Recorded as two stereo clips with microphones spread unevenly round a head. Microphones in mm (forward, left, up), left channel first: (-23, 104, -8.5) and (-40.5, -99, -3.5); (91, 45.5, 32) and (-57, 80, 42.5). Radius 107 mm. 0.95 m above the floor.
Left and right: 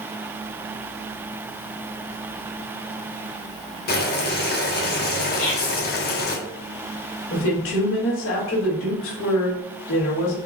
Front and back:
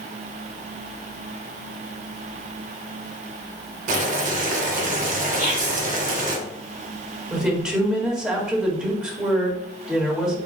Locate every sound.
3.9 s boiling: 130° left, 0.9 m
5.4 s whispering: 135° left, 2 m
7.3 s a woman speaking: 80° left, 1.7 m